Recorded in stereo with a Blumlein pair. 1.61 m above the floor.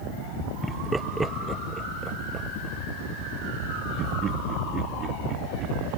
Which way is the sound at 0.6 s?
Straight ahead.